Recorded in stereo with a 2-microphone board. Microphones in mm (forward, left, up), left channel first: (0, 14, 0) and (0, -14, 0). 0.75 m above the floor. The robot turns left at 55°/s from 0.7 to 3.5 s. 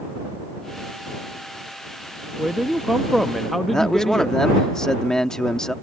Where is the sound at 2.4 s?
125° right; by 4.4 s 175° left.